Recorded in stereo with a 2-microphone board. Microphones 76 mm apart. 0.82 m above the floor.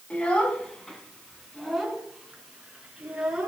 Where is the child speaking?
15° left (ahead or behind), 3.5 m; by 3.5 s 10° right (ahead or behind), 5.5 m.